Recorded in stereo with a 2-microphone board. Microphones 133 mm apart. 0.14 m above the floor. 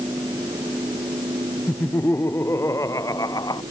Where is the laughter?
15° left (ahead or behind); by 3.6 s 30° left (ahead or behind).